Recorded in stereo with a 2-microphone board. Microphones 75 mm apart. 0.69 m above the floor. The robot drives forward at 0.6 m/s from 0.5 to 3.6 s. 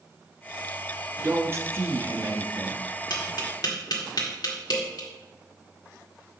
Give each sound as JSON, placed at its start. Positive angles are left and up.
{"t": 1.2, "sound": "a man speaking", "side_deg": -35, "distance_m": 0.8}
{"t": 3.1, "sound": "tapping", "side_deg": 65, "distance_m": 1.8}